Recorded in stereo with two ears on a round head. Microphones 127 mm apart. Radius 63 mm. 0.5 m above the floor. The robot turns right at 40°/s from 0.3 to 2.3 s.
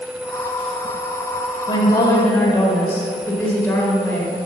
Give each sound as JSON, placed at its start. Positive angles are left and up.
{"t": 1.7, "sound": "a woman speaking", "side_deg": 35, "distance_m": 1.8}